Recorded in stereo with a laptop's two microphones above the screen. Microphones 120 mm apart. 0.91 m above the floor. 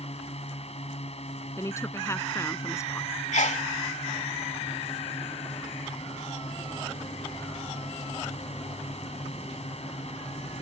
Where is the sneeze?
80° left.